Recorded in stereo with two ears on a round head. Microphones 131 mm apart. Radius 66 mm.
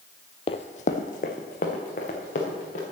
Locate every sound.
0.5 s running footsteps: 35° left (ahead or behind), 0.6 m; by 2.8 s 55° left (ahead or behind), 3.5 m